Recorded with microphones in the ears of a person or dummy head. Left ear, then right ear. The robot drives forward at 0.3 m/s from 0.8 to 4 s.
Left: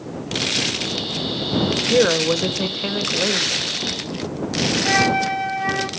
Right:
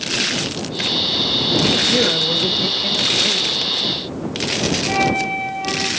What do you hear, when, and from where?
1.9 s a woman speaking: 80° left, 1.4 m; by 3.7 s 75° left (ahead or behind), 1.5 m
4.8 s a flute: 65° left (ahead or behind), 1.5 m